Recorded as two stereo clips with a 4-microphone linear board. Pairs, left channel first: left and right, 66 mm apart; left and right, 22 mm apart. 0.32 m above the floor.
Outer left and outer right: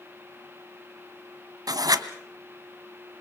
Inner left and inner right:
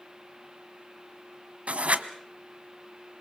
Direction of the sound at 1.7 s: 70° right (ahead or behind).